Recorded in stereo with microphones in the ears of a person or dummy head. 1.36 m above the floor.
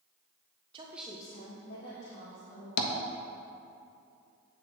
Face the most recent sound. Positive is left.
turn(degrees=50)  # may be behind; listen again after turning